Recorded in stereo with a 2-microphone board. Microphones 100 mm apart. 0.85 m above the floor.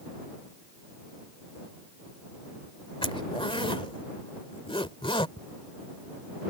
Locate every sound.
3.0 s a zipper: 60° left (ahead or behind)
5.4 s ticking: 50° left (ahead or behind)